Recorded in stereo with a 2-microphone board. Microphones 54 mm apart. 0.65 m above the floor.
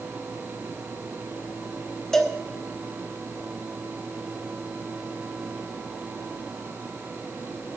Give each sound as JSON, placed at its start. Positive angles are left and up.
{"t": 2.1, "sound": "a cowbell", "side_deg": 10, "distance_m": 1.1}